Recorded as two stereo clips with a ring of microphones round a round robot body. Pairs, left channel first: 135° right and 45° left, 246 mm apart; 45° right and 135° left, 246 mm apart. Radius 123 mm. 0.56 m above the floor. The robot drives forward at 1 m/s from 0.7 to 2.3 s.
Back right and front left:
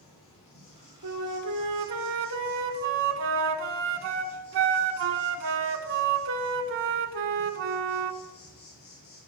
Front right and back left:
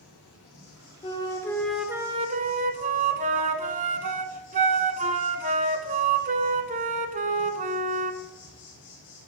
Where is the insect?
70° right, 6.5 m; by 9.3 s 85° right, 6 m.